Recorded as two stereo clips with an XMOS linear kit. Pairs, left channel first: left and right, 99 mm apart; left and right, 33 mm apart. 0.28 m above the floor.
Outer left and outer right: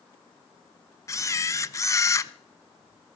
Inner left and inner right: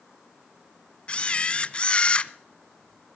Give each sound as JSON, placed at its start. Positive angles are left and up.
{"t": 1.1, "sound": "a camera shutter", "side_deg": 30, "distance_m": 0.5}